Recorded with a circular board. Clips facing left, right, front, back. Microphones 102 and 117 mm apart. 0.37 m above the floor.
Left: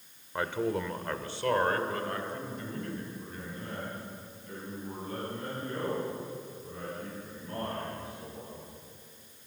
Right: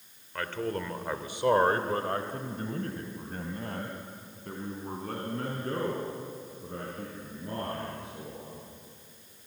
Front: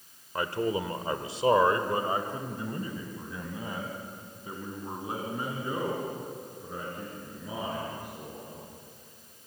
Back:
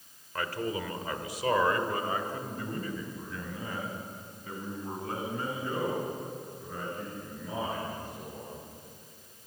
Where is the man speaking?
45° left, 1.3 m; by 8.6 s 75° right, 6.5 m.